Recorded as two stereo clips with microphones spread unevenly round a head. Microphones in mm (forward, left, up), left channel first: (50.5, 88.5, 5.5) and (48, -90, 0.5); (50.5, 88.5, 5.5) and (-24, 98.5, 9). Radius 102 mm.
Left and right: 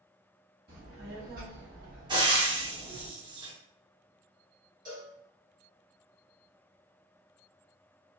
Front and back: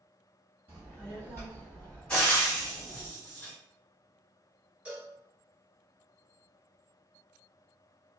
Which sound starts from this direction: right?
Frying, at 2.1 s.